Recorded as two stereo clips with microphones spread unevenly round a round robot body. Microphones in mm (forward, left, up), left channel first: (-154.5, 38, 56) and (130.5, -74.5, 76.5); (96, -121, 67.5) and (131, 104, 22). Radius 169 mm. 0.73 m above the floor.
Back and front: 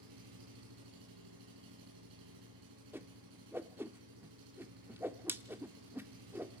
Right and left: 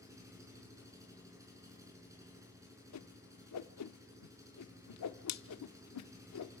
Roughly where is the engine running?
Ahead.